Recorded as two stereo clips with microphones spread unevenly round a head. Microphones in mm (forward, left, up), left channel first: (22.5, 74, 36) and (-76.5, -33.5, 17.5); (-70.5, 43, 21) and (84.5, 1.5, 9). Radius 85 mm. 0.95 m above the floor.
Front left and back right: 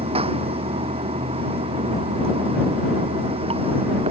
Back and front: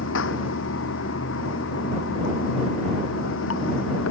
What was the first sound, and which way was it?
Running water, 175° left.